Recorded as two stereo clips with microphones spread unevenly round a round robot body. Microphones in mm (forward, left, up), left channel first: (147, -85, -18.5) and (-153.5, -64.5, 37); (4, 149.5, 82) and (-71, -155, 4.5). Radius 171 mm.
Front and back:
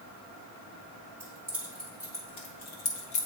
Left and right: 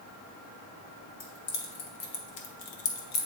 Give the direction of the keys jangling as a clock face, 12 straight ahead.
9 o'clock.